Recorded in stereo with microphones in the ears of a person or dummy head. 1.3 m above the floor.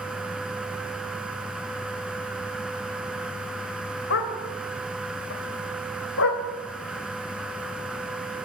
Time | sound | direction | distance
4.1 | a dog barking | 70° left (ahead or behind) | 2.5 m